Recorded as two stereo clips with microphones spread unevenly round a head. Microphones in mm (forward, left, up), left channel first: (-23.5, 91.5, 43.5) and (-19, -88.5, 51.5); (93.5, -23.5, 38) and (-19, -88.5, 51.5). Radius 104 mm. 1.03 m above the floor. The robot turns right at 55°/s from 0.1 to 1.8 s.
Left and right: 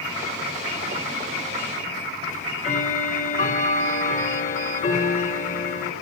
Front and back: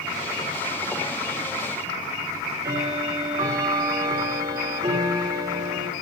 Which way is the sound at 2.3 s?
140° left.